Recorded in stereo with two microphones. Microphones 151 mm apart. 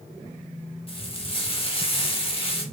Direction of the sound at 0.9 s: 35° left (ahead or behind).